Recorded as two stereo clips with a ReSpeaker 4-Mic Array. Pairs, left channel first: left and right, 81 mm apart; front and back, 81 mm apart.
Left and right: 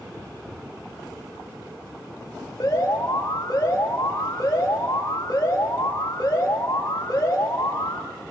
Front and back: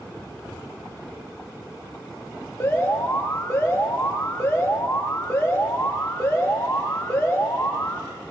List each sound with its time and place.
2.6 s an alarm: 50° left, 6.5 m